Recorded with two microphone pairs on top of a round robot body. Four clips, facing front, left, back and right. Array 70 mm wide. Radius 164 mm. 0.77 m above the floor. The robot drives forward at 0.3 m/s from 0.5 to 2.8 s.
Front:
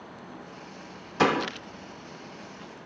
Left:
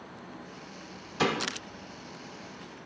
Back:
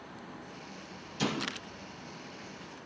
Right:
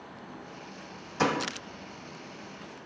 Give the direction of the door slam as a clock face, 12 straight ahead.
12 o'clock.